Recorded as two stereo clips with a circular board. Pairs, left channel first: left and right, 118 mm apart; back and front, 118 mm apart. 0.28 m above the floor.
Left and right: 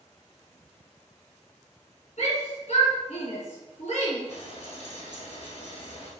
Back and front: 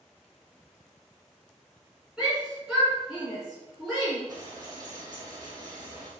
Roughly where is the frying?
Ahead left.